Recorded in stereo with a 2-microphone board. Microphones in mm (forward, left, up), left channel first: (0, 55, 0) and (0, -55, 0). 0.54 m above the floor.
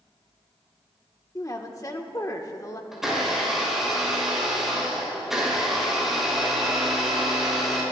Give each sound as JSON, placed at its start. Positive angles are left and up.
{"t": 1.4, "sound": "a woman speaking", "side_deg": 35, "distance_m": 1.1}
{"t": 2.9, "sound": "a blender", "side_deg": -5, "distance_m": 5.0}